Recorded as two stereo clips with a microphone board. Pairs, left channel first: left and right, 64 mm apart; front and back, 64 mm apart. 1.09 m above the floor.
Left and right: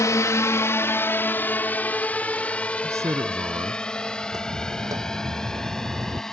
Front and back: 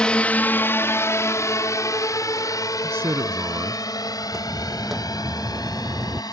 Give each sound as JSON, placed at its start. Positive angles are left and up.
{"t": 0.0, "sound": "a drone", "azimuth_deg": 70}
{"t": 2.8, "sound": "a man speaking", "azimuth_deg": -130}
{"t": 4.2, "sound": "footsteps", "azimuth_deg": -85}